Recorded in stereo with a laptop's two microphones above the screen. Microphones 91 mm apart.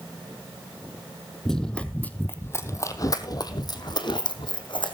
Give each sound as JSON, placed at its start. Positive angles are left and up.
{"t": 1.4, "sound": "running footsteps", "side_deg": 5, "distance_m": 1.3}